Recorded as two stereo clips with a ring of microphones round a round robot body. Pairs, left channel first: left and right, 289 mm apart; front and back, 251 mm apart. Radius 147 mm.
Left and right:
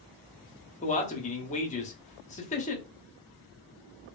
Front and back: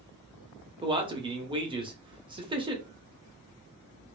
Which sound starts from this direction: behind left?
A man speaking, at 0.8 s.